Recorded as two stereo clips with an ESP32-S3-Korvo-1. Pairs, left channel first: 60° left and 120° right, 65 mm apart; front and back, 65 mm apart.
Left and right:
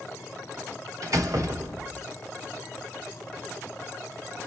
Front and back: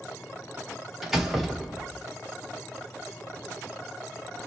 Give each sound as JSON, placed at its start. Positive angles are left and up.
{"t": 1.0, "sound": "a door slam", "azimuth_deg": -95, "distance_m": 1.0}